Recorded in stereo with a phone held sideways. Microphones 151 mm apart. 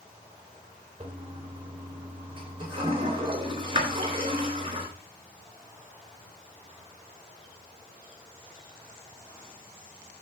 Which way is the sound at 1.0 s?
35° right (ahead or behind).